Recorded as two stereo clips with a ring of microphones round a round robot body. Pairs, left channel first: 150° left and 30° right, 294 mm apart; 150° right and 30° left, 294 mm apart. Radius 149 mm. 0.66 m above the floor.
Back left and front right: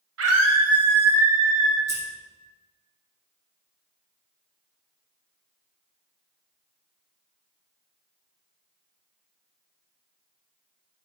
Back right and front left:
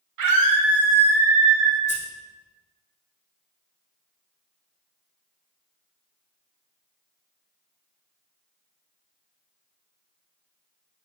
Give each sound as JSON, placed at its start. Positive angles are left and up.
{"t": 0.2, "sound": "a scream", "azimuth_deg": 10, "distance_m": 3.0}
{"t": 1.9, "sound": "scissors", "azimuth_deg": -80, "distance_m": 4.5}